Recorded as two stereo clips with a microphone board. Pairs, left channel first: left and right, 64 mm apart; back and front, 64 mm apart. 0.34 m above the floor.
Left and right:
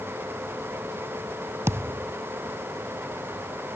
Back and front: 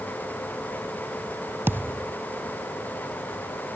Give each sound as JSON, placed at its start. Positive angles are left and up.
{"t": 1.7, "sound": "a thud", "azimuth_deg": -50}